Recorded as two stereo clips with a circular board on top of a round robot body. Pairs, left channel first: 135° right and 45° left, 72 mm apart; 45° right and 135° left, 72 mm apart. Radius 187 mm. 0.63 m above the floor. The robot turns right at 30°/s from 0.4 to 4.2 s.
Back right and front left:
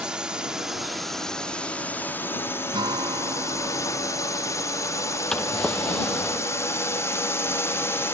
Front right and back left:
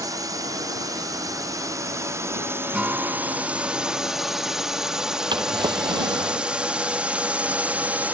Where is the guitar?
55° left; by 4.7 s 100° left.